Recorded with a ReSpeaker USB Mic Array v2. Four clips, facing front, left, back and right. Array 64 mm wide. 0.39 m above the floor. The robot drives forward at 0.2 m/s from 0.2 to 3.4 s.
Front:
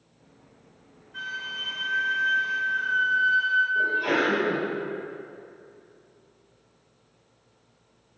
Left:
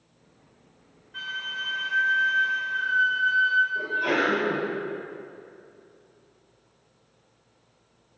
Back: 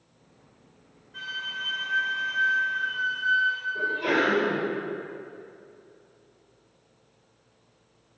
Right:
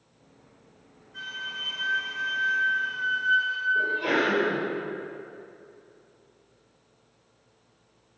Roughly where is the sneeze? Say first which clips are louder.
Even, front 1 dB; behind.